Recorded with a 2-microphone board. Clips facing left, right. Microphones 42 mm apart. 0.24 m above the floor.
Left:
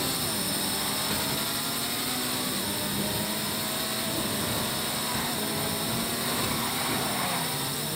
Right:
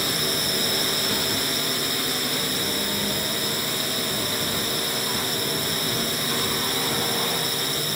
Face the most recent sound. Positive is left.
turn(degrees=-65)  # may be behind; listen again after turning